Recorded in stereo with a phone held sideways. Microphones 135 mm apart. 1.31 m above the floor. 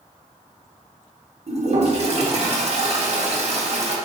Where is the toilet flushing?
50° right (ahead or behind), 0.7 m.